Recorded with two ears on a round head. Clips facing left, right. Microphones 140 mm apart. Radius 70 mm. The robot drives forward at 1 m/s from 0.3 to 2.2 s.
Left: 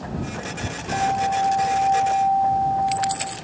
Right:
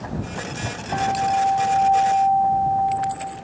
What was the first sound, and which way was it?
A guitar, 75° left (ahead or behind).